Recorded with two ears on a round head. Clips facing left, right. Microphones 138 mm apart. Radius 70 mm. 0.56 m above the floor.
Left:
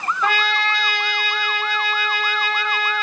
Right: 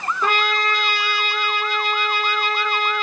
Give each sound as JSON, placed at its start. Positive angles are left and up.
{"t": 0.2, "sound": "a trumpet", "side_deg": -35, "distance_m": 1.8}